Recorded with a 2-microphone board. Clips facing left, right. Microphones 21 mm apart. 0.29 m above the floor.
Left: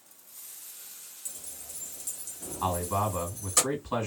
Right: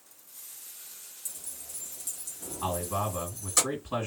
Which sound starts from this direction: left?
A man speaking, at 2.6 s.